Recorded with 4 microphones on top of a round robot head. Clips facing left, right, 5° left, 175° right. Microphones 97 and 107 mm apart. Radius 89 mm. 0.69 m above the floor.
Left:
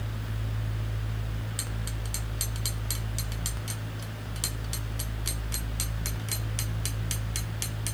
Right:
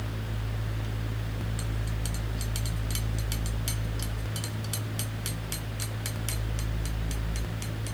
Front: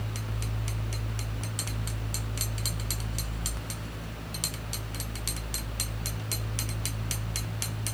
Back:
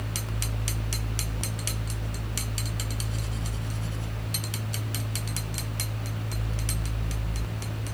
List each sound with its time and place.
Only background noise.